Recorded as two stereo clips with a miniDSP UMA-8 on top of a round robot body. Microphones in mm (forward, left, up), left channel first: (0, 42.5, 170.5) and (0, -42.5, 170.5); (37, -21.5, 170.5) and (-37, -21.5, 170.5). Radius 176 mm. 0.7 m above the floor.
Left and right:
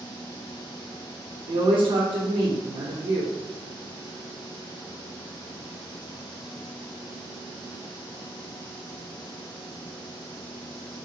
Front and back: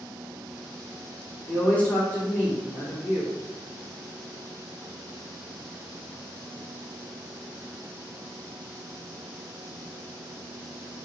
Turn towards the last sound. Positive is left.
turn(degrees=-70)